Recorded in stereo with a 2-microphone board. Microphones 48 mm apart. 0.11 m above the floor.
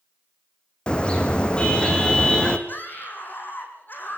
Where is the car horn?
20° left (ahead or behind), 2.5 m.